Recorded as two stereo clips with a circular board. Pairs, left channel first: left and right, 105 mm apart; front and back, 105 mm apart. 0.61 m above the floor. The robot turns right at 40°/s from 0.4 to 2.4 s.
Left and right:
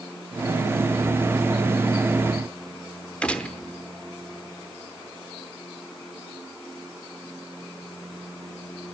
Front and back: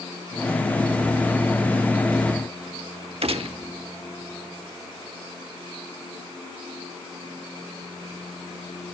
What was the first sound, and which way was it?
A gunshot, 170° left.